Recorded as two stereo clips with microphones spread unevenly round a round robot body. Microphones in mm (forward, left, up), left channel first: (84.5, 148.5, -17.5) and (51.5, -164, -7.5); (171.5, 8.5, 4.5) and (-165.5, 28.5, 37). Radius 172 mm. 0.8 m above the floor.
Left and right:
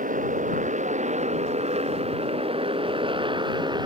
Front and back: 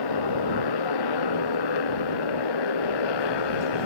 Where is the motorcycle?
30° right; by 3.9 s 20° right.